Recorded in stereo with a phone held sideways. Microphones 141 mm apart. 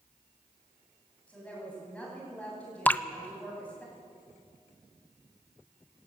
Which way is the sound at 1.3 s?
10° left (ahead or behind).